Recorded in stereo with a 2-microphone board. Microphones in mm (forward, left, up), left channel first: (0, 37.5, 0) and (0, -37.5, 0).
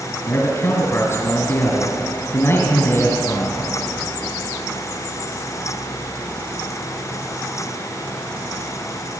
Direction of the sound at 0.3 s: 40° left (ahead or behind).